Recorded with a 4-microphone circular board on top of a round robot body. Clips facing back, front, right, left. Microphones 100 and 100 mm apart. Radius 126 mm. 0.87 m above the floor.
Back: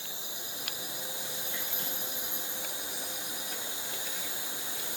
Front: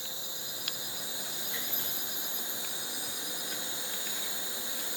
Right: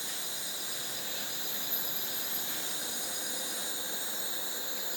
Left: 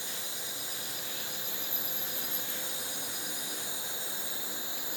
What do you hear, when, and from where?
0.0 s an insect: 135° left, 7 m